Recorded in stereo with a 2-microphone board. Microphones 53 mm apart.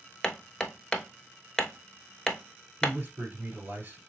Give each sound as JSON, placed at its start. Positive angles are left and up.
{"t": 0.2, "sound": "hammering", "side_deg": 15, "distance_m": 0.8}
{"t": 2.8, "sound": "a man speaking", "side_deg": -35, "distance_m": 2.0}